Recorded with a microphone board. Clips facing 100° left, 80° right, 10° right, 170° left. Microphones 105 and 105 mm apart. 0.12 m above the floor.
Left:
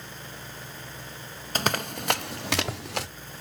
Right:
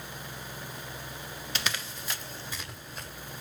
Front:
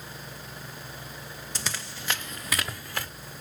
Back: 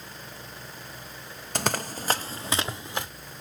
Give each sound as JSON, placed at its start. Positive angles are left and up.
{"t": 1.6, "sound": "running footsteps", "azimuth_deg": 145, "distance_m": 0.7}